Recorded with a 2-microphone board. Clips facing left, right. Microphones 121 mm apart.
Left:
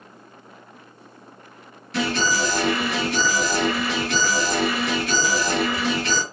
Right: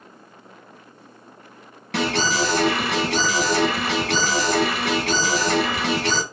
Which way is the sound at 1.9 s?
90° right.